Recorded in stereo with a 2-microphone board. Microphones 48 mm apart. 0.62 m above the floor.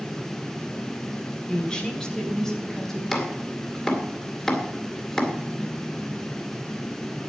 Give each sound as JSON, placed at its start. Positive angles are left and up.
{"t": 1.5, "sound": "a woman speaking", "side_deg": 20, "distance_m": 2.5}
{"t": 3.1, "sound": "chopping", "side_deg": 10, "distance_m": 2.5}